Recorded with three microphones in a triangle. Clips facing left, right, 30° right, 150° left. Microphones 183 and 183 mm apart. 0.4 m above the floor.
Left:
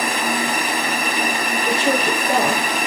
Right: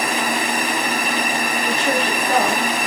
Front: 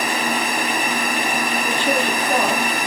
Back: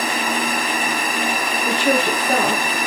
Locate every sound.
1.6 s a woman speaking: 155° left, 8 m